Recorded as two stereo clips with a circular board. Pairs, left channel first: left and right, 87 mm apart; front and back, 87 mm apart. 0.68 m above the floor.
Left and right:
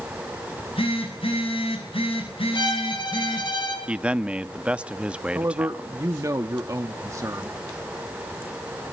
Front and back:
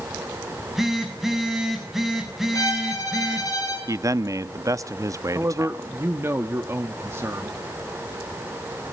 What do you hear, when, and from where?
0.5 s a phone buzzing: 95° left, 6.5 m
2.5 s a violin: 50° left, 7 m
3.9 s a man speaking: 160° right, 0.6 m
5.3 s a man speaking: 130° right, 1.0 m